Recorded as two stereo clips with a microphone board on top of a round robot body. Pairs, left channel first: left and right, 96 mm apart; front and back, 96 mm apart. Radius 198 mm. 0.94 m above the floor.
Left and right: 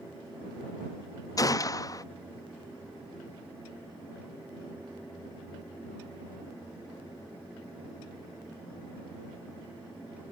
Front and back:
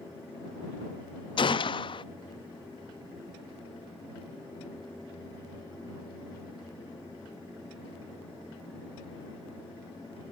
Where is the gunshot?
35° left.